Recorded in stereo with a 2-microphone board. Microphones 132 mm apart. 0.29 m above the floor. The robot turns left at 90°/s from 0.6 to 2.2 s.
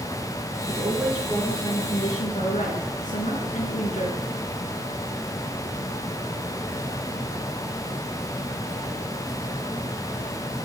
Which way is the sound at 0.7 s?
135° right.